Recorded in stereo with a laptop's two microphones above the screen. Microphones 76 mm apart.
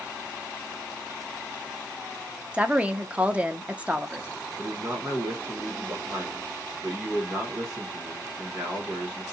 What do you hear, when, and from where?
2.5 s a woman speaking: 20° right (ahead or behind), 0.6 m
4.6 s a man speaking: 25° right (ahead or behind), 1.0 m